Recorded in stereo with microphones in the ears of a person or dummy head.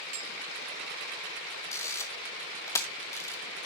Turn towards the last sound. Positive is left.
turn(degrees=20)  # may be behind; listen again after turning